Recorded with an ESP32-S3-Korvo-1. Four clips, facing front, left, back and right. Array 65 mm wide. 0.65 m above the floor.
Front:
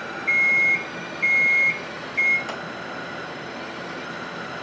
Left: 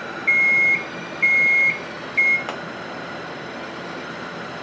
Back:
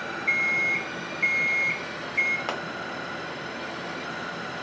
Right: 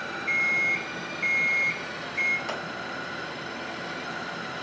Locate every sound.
0.3 s an alarm clock: 90° left, 0.9 m
2.5 s a pop: 135° left, 1.5 m